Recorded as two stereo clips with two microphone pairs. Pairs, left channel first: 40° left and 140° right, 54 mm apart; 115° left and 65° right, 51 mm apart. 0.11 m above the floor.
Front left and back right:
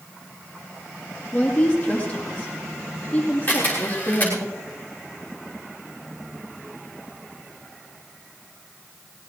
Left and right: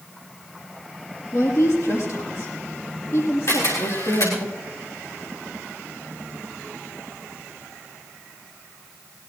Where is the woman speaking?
105° left, 4.5 m.